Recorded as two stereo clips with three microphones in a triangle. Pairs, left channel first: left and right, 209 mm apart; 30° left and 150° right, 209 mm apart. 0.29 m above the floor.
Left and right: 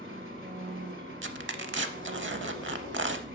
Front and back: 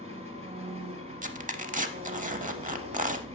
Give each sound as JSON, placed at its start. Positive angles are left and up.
{"t": 0.0, "sound": "an engine running", "azimuth_deg": -95, "distance_m": 1.1}
{"t": 1.2, "sound": "tearing paper", "azimuth_deg": -100, "distance_m": 0.6}